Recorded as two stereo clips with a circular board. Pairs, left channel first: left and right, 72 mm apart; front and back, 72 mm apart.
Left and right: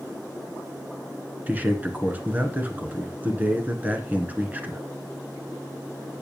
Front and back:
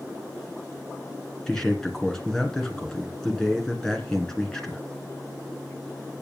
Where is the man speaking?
70° right, 1.8 m.